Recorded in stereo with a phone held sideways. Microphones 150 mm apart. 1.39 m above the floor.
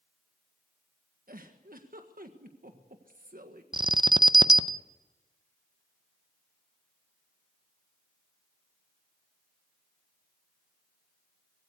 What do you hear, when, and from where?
1.3 s a giggle: 70° right (ahead or behind), 1.5 m
3.7 s an alarm: 30° right (ahead or behind), 0.6 m